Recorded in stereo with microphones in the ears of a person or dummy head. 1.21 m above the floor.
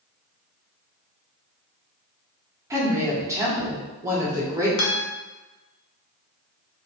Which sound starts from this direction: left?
A guitar, at 4.8 s.